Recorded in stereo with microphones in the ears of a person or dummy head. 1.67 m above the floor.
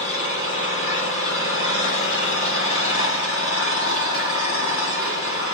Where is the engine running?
75° left (ahead or behind), 4.5 m.